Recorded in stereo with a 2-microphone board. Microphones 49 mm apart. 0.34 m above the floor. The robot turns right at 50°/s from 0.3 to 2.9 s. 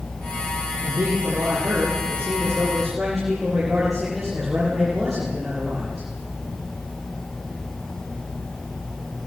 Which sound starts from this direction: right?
A man speaking, at 0.8 s.